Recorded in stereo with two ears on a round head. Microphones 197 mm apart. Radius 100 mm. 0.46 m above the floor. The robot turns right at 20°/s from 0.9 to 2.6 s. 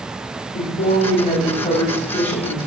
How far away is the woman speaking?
About 2 m.